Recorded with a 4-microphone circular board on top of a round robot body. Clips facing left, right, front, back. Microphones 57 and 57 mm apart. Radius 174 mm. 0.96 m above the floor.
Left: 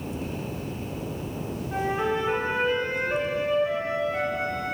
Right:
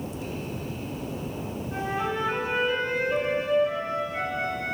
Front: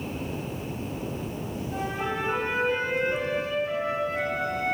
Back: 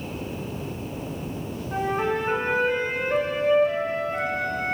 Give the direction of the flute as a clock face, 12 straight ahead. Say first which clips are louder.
Left 3 dB, back 6 dB; 7 o'clock.